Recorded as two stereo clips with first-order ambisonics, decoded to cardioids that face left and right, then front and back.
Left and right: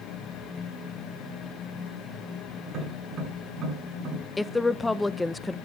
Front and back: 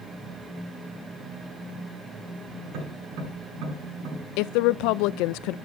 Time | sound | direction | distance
2.6 | tapping | 150° right | 8.5 m
4.4 | a woman speaking | 5° left | 0.6 m